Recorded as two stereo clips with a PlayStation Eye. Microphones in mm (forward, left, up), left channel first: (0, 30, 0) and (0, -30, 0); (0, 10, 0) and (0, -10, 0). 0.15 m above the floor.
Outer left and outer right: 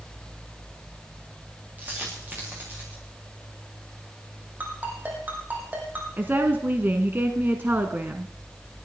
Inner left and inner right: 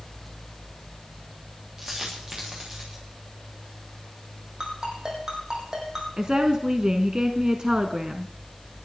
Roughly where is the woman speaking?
Right.